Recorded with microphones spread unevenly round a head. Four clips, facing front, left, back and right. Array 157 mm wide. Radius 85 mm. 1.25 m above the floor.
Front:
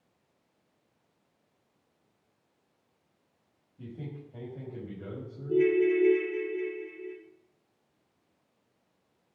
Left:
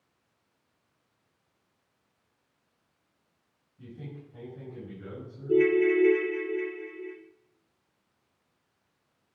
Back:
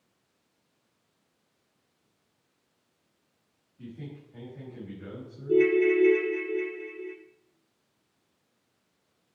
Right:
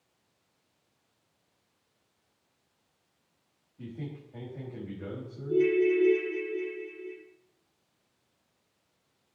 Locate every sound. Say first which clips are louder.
3.8 s a man speaking: right 3 dB, even; 40° right, 6 m
5.5 s a ringtone: left 2 dB, back 2 dB; 140° left, 1.9 m